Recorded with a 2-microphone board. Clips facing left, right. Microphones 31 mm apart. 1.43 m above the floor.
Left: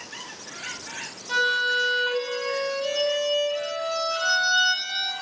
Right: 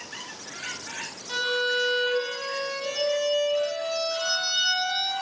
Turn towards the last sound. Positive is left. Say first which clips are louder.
# left 3 dB
turn(degrees=20)  # may be behind; listen again after turning